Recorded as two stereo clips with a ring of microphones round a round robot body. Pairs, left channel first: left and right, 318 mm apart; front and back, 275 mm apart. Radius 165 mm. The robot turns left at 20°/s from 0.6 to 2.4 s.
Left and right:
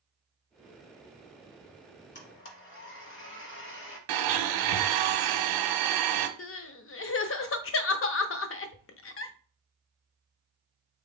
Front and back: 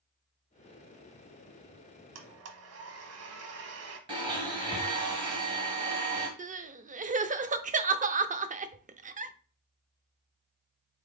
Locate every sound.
2.1 s a blender: 150° left, 1.1 m; by 4.0 s 145° left, 1.1 m
4.1 s a blender: 105° right, 0.9 m
6.4 s crying: 125° left, 0.6 m